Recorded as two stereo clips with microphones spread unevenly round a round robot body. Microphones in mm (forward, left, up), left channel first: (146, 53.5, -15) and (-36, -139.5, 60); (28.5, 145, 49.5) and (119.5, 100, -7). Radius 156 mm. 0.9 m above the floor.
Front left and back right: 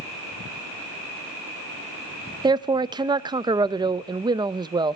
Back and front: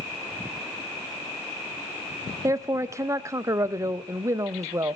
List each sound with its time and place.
2.4 s a man speaking: 50° right, 0.6 m